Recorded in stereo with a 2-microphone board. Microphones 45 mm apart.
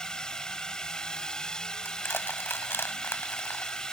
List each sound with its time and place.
0.0 s a drone: 15° left (ahead or behind)
1.9 s crushing: 60° left (ahead or behind)